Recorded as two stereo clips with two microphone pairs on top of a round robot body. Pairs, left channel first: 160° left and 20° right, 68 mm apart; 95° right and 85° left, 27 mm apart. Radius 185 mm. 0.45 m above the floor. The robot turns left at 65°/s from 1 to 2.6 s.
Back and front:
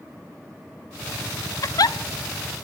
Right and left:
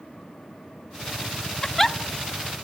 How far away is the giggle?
About 0.8 m.